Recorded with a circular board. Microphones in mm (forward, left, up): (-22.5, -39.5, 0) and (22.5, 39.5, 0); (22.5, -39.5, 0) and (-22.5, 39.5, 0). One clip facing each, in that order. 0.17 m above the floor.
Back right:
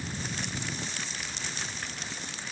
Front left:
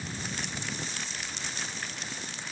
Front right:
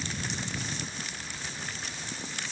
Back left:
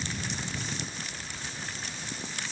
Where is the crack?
No crack in this recording.